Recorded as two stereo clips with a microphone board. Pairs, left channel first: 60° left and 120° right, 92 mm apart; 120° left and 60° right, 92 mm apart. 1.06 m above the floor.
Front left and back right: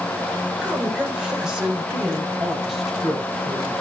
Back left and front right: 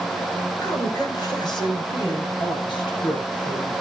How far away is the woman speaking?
About 4.5 m.